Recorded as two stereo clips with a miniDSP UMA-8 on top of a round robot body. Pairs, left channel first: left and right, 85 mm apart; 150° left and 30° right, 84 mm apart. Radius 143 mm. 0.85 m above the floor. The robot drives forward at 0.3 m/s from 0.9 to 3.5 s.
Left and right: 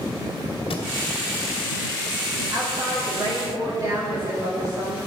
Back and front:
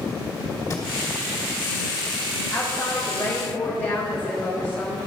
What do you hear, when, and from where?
0.7 s a thud: 95° left, 1.5 m
2.5 s a woman speaking: 135° right, 1.9 m; by 5.0 s 140° right, 2 m